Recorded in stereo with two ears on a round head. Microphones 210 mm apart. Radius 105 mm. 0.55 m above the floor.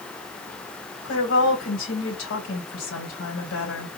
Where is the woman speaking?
65° left (ahead or behind), 3 m.